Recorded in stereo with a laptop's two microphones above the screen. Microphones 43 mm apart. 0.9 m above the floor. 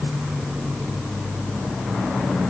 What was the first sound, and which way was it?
Only background noise.